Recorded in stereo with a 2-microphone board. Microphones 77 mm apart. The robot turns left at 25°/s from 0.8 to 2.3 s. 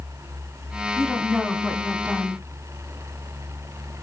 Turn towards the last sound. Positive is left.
turn(degrees=-30)